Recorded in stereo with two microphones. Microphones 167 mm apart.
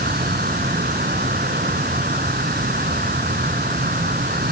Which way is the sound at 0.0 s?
65° right (ahead or behind).